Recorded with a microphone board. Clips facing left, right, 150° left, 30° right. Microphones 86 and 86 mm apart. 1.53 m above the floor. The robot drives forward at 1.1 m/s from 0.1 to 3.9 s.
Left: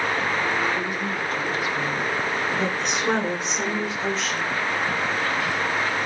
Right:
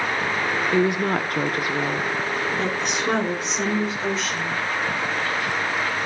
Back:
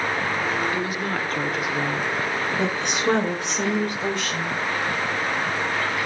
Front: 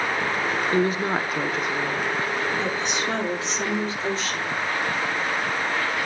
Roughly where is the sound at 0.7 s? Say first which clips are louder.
Right 6 dB, front 4 dB; right.